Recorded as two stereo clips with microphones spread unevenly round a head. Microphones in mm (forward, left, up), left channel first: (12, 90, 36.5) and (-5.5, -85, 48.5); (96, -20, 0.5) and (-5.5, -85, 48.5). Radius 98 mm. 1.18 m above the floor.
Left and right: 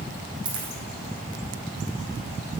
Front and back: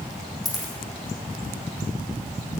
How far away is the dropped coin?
About 4.5 m.